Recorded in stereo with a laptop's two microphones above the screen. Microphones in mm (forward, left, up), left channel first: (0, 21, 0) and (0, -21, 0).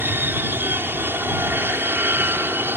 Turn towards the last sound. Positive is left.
turn(degrees=-65)  # may be behind; listen again after turning